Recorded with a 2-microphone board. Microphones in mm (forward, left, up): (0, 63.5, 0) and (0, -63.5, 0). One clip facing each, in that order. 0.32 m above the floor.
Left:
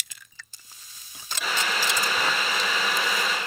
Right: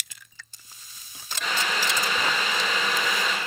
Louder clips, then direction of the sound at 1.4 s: Even; 5° left (ahead or behind).